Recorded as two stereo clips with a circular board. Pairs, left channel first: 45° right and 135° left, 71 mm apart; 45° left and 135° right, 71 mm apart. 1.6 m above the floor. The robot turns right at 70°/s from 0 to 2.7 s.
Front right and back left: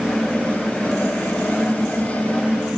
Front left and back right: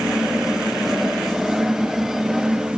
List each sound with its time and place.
Only background noise.